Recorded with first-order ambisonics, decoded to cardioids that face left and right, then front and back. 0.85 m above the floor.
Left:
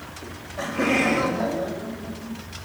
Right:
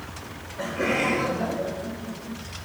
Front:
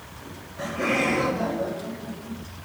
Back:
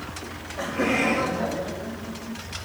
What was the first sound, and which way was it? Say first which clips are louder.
Laughter: left 2 dB, back 1 dB; 135° left.